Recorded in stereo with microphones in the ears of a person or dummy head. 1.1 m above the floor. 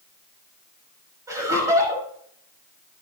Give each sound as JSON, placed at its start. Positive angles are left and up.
{"t": 1.3, "sound": "laughter", "side_deg": -15, "distance_m": 6.5}